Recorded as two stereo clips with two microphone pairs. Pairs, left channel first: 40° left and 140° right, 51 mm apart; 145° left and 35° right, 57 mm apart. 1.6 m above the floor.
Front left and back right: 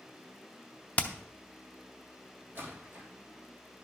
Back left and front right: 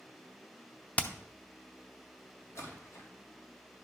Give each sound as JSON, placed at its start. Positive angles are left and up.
{"t": 1.0, "sound": "hammering", "azimuth_deg": 90, "distance_m": 0.7}
{"t": 2.5, "sound": "a splash", "azimuth_deg": 175, "distance_m": 2.5}